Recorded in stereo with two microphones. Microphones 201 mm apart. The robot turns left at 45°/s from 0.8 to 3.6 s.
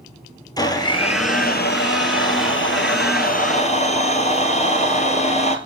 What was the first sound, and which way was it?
A blender, 160° left.